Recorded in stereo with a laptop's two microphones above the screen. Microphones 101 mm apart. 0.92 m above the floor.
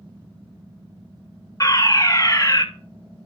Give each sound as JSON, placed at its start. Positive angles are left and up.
{"t": 1.6, "sound": "a fire alarm", "side_deg": 35, "distance_m": 2.0}